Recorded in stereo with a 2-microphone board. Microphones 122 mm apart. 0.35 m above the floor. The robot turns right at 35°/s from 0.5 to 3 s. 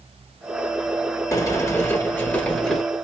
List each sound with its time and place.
1.3 s a sliding door: 120° left, 1.0 m; by 2.8 s 175° left, 1.0 m